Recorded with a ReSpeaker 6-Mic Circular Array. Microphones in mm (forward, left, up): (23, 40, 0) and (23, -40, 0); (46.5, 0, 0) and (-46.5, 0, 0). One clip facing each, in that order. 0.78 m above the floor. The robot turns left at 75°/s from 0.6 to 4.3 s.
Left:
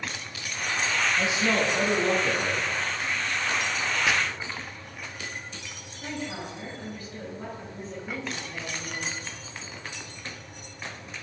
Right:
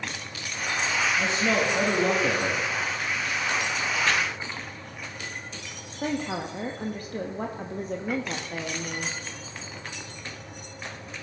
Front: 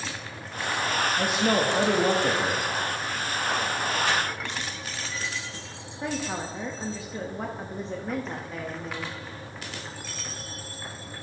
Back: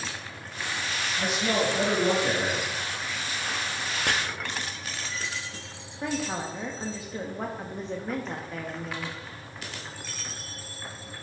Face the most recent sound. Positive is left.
turn(degrees=-90)